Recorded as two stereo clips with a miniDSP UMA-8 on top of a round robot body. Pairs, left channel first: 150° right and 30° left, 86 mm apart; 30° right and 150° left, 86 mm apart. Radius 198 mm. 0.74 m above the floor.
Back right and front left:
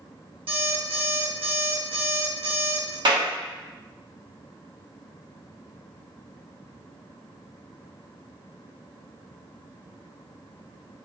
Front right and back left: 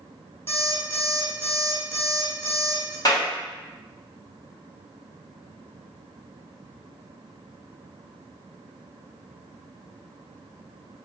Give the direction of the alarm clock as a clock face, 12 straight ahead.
11 o'clock.